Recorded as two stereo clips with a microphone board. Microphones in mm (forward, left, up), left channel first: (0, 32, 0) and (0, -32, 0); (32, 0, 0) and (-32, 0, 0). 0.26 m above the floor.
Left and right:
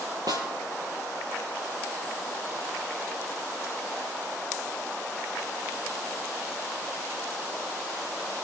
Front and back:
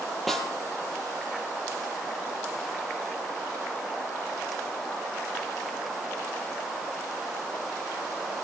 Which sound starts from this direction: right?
A snare drum, at 0.3 s.